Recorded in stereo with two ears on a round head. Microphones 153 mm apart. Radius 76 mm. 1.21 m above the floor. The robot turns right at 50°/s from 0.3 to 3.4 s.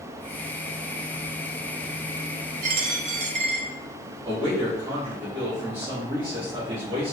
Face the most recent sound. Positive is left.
turn(degrees=-30)  # may be behind; listen again after turning